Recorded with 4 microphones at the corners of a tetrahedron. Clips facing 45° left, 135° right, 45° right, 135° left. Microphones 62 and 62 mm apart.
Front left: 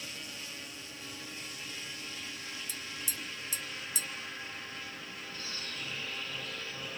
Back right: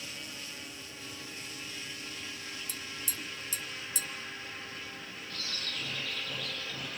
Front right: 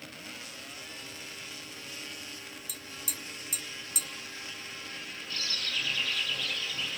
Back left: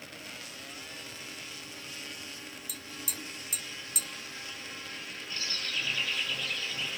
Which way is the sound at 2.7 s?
135° right.